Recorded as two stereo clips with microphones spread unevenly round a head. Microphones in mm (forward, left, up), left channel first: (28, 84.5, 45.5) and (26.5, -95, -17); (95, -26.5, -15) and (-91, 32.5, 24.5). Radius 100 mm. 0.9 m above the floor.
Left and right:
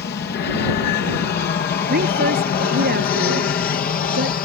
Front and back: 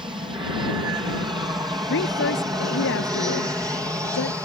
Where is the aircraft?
95° left; by 4.5 s 80° left.